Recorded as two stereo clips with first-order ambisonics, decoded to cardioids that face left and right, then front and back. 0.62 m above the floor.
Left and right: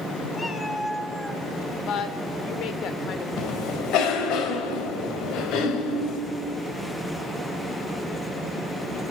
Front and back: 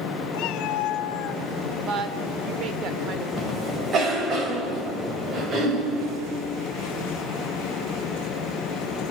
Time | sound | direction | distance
0.3 | a cat meowing | 15° left | 1.4 m
1.9 | a woman speaking | 135° left | 1.8 m
3.4 | a cough | 125° left | 4 m